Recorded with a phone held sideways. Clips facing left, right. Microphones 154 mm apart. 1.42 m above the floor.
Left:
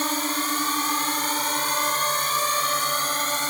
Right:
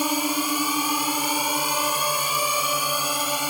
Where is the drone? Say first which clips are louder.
Right 3 dB; 10° right (ahead or behind).